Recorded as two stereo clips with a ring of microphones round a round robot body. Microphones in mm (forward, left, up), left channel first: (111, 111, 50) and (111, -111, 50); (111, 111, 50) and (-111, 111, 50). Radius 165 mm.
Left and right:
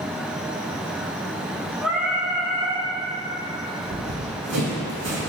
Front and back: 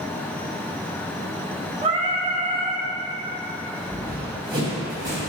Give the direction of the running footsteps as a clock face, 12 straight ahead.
4 o'clock.